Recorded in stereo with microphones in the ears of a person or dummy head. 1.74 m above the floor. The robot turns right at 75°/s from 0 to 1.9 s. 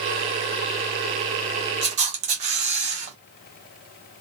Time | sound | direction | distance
1.8 | a camera shutter | 30° right (ahead or behind) | 0.8 m